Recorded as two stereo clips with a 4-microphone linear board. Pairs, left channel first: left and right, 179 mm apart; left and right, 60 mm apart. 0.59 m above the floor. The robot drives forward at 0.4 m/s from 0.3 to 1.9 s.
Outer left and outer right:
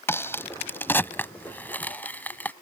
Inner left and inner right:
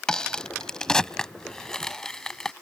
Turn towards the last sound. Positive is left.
turn(degrees=10)  # may be behind; listen again after turning